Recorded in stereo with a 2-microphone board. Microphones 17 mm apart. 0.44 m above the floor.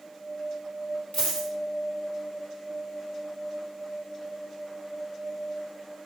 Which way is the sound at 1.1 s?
75° left (ahead or behind).